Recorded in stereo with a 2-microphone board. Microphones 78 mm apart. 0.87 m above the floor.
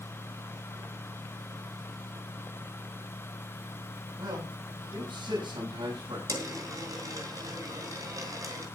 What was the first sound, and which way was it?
A man speaking, 80° right.